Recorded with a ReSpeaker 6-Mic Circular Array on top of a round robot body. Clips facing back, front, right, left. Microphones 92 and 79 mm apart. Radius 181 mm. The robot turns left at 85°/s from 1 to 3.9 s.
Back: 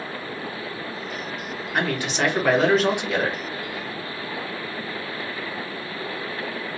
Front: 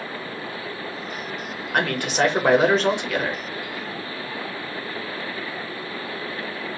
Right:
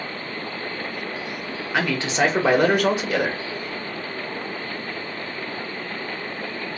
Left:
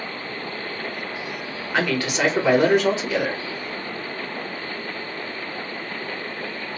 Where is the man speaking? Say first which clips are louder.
Front 2 dB, even; 5° right, 1.4 m; by 3.4 s 145° right, 1.4 m.